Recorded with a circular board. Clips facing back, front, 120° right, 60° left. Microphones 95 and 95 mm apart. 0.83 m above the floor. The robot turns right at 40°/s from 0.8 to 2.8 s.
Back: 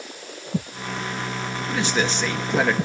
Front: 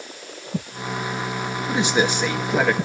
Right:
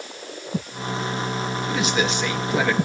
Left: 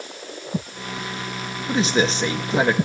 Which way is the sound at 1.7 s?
50° left.